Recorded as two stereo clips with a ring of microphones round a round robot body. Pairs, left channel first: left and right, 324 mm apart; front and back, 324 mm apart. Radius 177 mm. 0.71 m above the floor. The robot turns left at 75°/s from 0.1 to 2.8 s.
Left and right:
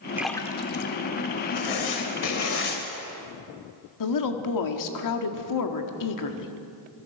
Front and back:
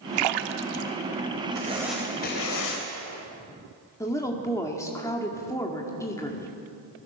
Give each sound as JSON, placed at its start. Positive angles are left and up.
{"t": 0.2, "sound": "a splash", "azimuth_deg": -175, "distance_m": 1.0}
{"t": 1.6, "sound": "writing", "azimuth_deg": 120, "distance_m": 3.5}
{"t": 4.0, "sound": "a woman speaking", "azimuth_deg": 80, "distance_m": 1.7}